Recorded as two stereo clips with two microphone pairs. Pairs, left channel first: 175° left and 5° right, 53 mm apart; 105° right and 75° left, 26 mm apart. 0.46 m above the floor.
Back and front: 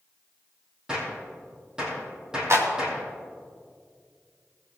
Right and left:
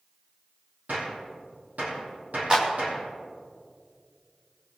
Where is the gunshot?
70° left, 4 m.